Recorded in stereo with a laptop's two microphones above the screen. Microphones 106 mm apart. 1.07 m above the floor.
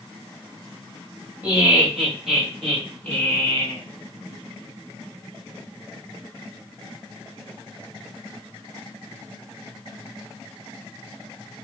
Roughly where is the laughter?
Centre.